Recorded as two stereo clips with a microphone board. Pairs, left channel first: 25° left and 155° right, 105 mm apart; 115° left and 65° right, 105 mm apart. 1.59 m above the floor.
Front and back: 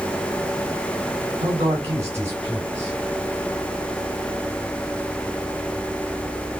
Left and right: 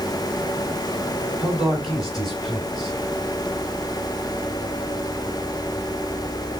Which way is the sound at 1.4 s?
160° right.